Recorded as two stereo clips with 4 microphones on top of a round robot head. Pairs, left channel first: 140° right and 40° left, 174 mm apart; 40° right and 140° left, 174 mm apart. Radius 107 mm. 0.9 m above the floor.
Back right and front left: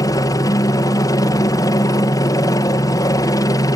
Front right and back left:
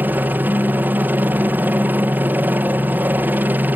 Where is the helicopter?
155° right.